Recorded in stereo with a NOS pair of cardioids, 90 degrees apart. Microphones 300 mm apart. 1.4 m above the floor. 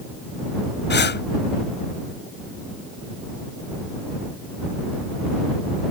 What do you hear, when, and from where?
0.9 s breathing: 35° left